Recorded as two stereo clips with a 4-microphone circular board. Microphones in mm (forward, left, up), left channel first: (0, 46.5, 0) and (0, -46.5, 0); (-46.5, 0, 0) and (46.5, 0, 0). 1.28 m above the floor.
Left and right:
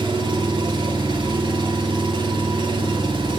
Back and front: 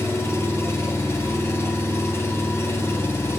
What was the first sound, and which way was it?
An engine running, 120° right.